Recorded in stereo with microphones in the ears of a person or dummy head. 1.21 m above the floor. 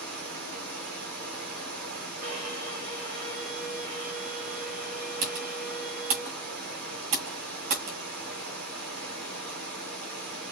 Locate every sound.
0.0 s running water: 55° right (ahead or behind), 2 m
2.2 s a violin: 50° right (ahead or behind), 2 m
5.2 s typing on a keyboard: 45° right (ahead or behind), 2.0 m